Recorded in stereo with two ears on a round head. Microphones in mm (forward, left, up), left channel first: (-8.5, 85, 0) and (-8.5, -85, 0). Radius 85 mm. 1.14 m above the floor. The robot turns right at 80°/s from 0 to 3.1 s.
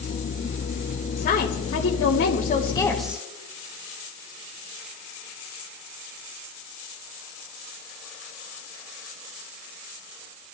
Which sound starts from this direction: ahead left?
A woman speaking, at 1.2 s.